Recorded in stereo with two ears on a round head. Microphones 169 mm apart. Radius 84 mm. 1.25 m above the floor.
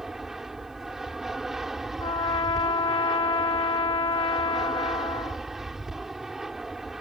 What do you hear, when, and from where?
0.0 s an aircraft: centre (ahead or behind)
2.0 s a trumpet: 30° left (ahead or behind)